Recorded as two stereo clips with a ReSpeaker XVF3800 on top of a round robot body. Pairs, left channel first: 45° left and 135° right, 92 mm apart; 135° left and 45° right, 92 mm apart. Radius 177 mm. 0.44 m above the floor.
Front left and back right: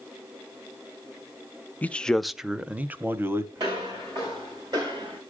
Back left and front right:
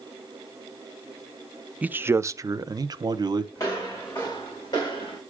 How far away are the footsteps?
About 4.5 m.